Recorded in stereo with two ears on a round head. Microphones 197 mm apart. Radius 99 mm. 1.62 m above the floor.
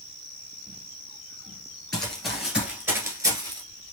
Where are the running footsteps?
5° left (ahead or behind), 2.0 m; by 3.6 s 20° right (ahead or behind), 1.6 m.